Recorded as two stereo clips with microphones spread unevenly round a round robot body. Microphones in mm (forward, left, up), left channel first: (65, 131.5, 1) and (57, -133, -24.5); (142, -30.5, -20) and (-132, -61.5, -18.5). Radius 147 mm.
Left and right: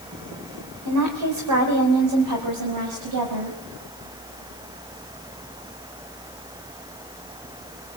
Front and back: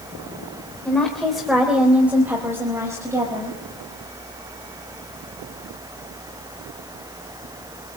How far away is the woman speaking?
About 3.5 m.